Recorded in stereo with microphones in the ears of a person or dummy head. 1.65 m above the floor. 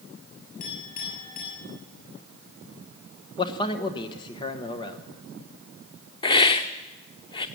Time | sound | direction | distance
0.6 | a clink | 50° left (ahead or behind) | 7 m
3.4 | a man speaking | 25° left (ahead or behind) | 1.2 m
6.2 | a hiss | 25° left (ahead or behind) | 0.7 m